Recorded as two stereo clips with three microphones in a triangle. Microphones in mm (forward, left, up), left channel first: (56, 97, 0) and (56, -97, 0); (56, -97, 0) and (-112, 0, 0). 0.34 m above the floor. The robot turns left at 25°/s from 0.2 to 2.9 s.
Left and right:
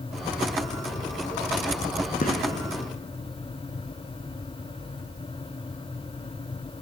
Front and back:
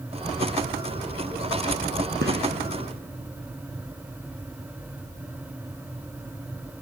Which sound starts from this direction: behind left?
A gunshot, at 2.2 s.